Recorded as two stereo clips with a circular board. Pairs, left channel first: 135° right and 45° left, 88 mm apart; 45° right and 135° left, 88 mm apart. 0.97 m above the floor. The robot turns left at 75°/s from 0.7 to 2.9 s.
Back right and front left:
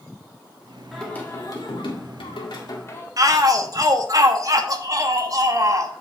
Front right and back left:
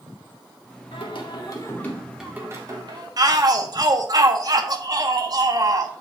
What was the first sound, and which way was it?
Singing, 45° right.